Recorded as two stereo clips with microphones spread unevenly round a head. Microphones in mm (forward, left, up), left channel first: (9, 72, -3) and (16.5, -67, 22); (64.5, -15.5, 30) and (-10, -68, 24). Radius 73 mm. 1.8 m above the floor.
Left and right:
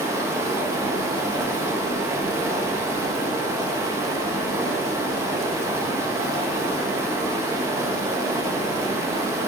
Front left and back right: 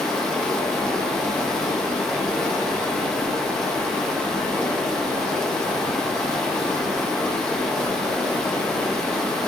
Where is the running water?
40° right, 1.2 m.